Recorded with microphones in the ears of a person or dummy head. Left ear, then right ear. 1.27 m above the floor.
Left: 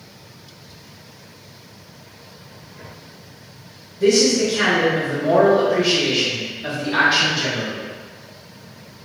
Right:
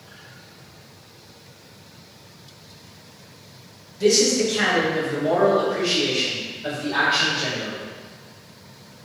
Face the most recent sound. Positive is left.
turn(degrees=35)  # may be behind; listen again after turning